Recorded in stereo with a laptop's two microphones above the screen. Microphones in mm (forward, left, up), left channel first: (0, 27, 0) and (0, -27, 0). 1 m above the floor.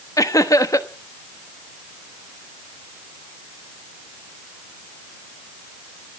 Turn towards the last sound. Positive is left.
turn(degrees=80)